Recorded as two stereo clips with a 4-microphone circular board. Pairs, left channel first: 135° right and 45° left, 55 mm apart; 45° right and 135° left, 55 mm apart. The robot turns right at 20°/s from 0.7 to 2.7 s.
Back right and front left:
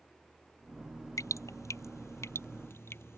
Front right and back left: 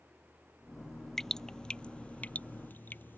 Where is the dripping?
125° right; by 3.2 s 95° right.